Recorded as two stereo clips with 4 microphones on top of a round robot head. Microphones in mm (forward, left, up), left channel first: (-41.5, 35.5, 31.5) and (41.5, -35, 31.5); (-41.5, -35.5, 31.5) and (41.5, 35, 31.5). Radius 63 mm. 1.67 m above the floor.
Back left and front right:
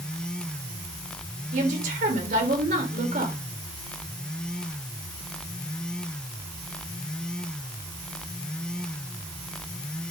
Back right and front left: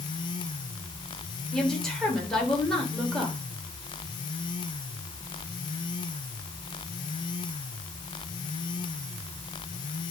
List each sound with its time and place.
1.5 s a woman speaking: 55° right, 3.5 m